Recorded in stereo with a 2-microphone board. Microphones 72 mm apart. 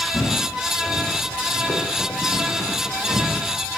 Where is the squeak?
I don't hear a squeak.